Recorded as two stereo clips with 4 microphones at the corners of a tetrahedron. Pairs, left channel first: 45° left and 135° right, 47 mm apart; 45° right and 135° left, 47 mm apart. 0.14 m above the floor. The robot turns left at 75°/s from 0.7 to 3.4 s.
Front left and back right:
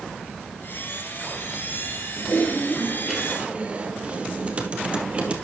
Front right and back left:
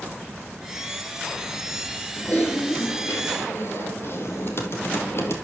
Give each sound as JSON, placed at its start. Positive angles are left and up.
{"t": 2.2, "sound": "typing on a keyboard", "azimuth_deg": 20, "distance_m": 2.5}